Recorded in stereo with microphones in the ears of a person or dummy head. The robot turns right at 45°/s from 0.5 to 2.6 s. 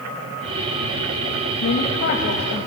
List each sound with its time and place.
1.6 s a woman speaking: 100° left, 2.5 m; by 2.7 s 145° left, 2.5 m